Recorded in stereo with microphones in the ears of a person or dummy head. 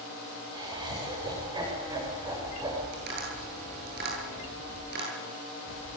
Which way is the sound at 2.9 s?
60° right (ahead or behind).